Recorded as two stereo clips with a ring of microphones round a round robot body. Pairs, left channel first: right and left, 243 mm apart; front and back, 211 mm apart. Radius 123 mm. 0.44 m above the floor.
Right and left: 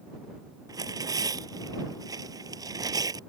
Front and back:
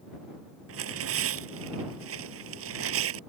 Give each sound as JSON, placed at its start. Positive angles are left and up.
{"t": 0.7, "sound": "tearing paper", "azimuth_deg": 165}